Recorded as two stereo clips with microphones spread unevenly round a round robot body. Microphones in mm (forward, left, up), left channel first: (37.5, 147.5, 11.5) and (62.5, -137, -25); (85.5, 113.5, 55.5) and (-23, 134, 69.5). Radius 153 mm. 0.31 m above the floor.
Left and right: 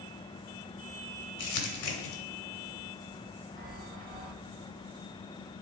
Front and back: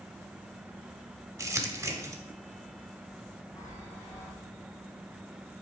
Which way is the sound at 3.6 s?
50° right.